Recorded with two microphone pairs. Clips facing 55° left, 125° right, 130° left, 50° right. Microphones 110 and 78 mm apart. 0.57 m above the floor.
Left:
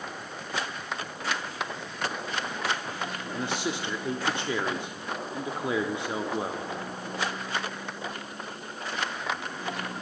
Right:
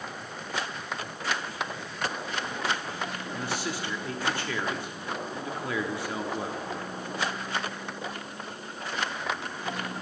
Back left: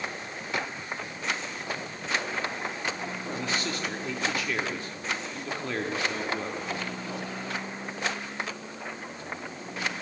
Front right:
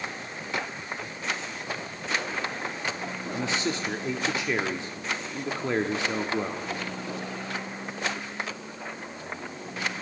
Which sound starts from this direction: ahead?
A man speaking, at 3.3 s.